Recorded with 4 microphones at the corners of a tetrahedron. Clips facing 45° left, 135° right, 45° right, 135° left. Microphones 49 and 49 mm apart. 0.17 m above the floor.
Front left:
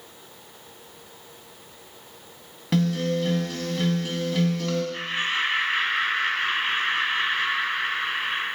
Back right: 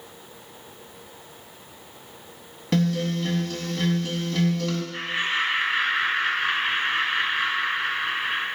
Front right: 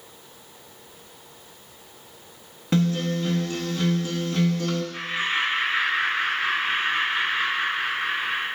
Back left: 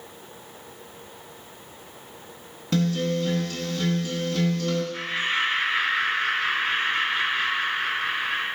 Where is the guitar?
35° right, 0.5 m.